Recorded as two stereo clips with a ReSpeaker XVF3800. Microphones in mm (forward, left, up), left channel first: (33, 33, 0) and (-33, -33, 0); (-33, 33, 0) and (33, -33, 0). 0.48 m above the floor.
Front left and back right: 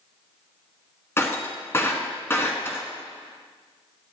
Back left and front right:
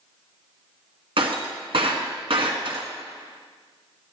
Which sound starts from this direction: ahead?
Breaking glass, at 1.2 s.